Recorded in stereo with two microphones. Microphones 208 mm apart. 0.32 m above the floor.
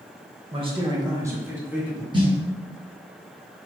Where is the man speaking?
30° right (ahead or behind), 0.9 m; by 2.0 s 5° right (ahead or behind), 1.5 m.